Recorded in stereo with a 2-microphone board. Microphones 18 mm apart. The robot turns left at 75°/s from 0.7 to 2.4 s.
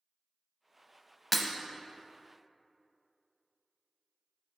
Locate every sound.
1.3 s breaking glass: 5° left (ahead or behind), 0.7 m; by 1.5 s 15° left (ahead or behind), 0.7 m